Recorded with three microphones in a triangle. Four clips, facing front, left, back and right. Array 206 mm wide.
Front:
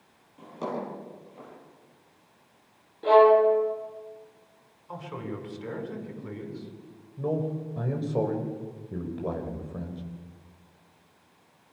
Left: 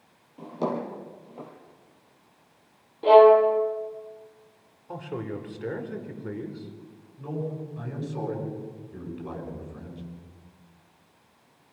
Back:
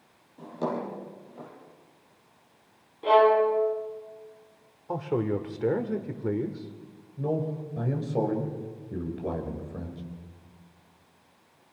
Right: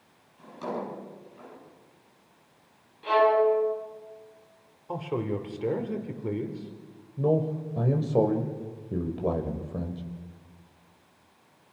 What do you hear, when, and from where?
0.4 s a drawer: 100° left, 7 m
3.0 s a violin: 85° left, 4 m
4.9 s a man speaking: 160° right, 3 m
7.2 s a man speaking: 90° right, 4 m